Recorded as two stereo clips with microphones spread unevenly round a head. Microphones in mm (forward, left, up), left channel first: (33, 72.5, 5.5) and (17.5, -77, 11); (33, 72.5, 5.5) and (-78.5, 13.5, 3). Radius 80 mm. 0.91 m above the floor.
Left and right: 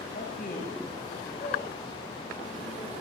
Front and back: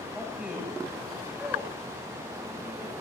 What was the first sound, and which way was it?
A man speaking, 125° left.